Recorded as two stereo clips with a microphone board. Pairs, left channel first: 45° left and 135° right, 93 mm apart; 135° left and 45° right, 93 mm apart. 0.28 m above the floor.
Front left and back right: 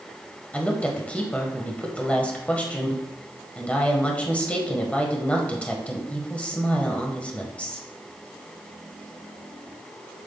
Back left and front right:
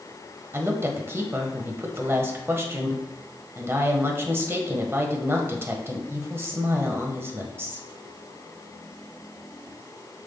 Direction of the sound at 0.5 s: 15° right.